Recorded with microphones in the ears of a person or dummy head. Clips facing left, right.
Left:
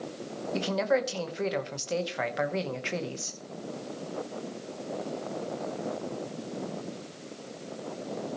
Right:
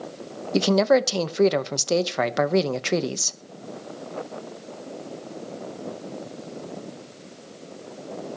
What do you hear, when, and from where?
0.5 s a man speaking: 70° right (ahead or behind), 1.0 m